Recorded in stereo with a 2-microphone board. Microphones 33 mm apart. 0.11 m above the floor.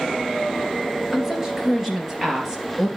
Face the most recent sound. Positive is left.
turn(degrees=-15)  # may be behind; listen again after turning